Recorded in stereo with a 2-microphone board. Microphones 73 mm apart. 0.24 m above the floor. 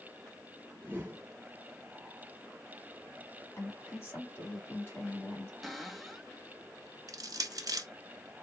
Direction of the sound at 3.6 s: 35° left (ahead or behind).